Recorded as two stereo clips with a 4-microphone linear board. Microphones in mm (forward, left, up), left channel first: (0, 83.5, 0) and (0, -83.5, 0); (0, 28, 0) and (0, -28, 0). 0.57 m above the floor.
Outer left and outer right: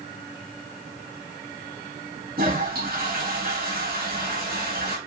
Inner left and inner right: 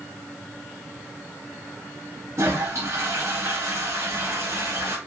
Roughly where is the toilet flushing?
Right.